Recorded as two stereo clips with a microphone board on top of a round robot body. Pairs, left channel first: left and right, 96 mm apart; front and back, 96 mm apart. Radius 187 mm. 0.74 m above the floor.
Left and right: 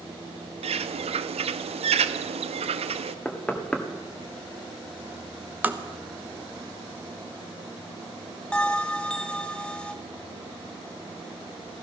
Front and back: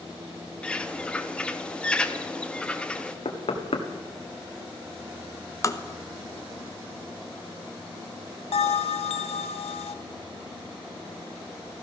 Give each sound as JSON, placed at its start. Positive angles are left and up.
{"t": 0.6, "sound": "a bird", "azimuth_deg": -80, "distance_m": 0.5}
{"t": 3.2, "sound": "knocking", "azimuth_deg": 10, "distance_m": 1.8}
{"t": 5.6, "sound": "tapping", "azimuth_deg": -30, "distance_m": 1.3}
{"t": 8.5, "sound": "a bell", "azimuth_deg": 10, "distance_m": 0.5}